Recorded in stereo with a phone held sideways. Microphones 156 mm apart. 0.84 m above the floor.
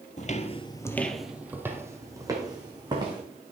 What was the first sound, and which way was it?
Footsteps, 45° left (ahead or behind).